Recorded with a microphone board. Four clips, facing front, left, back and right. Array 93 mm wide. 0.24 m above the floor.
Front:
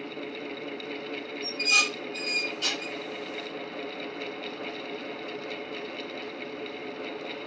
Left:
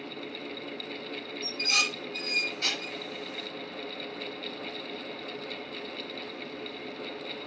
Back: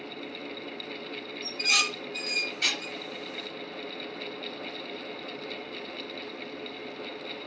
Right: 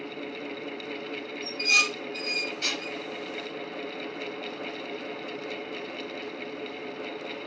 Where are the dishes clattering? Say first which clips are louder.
Right 5 dB, front 2 dB; 175° right, 3 m.